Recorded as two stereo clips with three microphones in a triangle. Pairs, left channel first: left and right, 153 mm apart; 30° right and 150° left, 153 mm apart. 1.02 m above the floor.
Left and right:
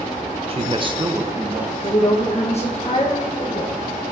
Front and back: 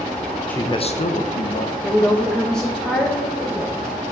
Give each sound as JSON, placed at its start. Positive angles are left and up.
{"t": 0.5, "sound": "a man speaking", "azimuth_deg": -110, "distance_m": 0.6}
{"t": 1.8, "sound": "a woman speaking", "azimuth_deg": 55, "distance_m": 1.1}